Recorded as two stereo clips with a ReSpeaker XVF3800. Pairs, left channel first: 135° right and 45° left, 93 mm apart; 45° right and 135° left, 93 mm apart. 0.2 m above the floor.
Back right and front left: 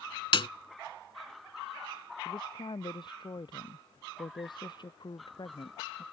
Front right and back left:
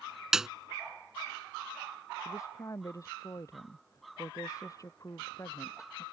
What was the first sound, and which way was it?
A snare drum, 140° right.